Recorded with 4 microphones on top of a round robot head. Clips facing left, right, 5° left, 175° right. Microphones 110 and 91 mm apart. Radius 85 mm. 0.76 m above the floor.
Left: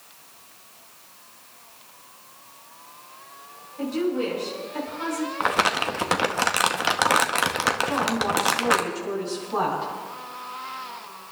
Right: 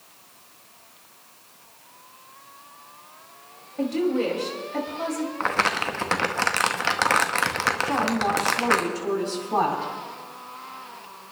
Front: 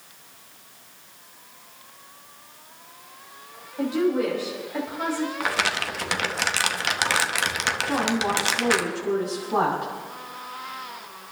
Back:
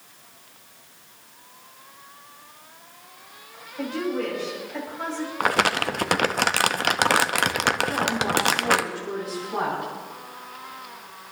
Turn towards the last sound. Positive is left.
turn(degrees=-55)